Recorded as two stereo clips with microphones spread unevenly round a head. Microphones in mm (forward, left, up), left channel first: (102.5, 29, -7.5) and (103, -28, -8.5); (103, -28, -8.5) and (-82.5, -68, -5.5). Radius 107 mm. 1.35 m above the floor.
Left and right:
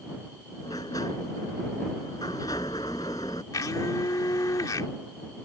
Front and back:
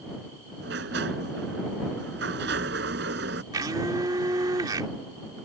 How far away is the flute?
No flute in this recording.